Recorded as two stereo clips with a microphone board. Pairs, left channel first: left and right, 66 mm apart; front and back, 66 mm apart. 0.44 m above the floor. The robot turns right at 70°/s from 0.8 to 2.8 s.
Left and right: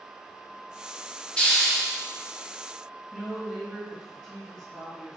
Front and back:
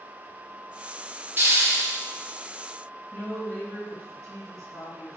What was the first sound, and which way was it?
A hiss, 150° left.